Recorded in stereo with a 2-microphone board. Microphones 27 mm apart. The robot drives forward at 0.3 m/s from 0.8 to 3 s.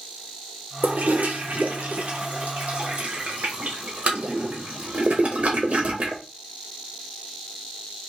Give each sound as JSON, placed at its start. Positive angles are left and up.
{"t": 0.8, "sound": "a toilet flushing", "side_deg": -75, "distance_m": 0.9}